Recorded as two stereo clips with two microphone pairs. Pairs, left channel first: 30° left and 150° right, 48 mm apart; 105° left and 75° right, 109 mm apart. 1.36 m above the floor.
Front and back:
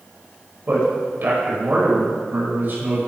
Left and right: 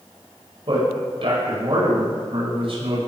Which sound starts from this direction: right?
A man speaking, at 0.7 s.